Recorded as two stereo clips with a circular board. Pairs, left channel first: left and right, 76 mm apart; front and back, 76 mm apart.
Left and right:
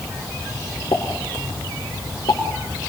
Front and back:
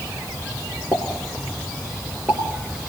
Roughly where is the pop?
Behind left.